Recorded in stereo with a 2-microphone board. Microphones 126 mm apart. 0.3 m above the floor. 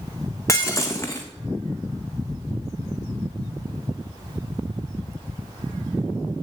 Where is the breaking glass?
20° left (ahead or behind), 1.3 m.